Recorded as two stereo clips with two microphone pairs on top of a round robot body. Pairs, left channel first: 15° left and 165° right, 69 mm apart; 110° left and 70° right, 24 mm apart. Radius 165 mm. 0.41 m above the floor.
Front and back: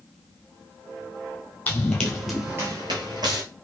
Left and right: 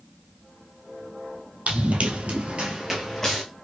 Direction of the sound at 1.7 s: 55° right.